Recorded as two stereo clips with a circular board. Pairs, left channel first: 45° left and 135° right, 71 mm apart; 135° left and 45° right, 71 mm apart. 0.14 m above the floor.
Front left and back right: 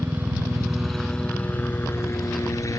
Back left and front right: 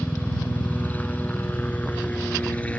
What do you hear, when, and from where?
0.0 s a helicopter: 170° right; by 2.8 s 70° left